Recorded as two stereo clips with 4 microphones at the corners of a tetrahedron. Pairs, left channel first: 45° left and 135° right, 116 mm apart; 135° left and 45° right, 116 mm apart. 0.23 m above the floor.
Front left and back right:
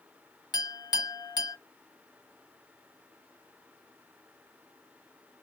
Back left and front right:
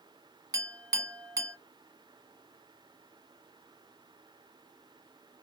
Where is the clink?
5° left, 1.1 m.